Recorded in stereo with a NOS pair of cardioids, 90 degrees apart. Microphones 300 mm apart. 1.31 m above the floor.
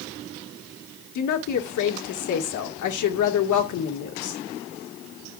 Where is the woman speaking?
65° left, 1.9 m.